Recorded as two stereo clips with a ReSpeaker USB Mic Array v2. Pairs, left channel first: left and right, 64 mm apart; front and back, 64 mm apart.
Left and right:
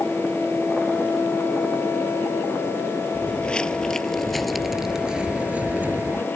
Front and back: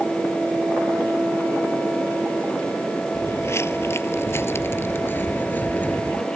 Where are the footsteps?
25° left; by 6.3 s 55° right.